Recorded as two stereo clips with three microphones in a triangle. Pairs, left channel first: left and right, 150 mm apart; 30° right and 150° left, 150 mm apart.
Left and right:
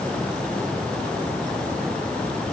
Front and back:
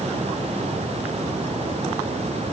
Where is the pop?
I don't hear a pop.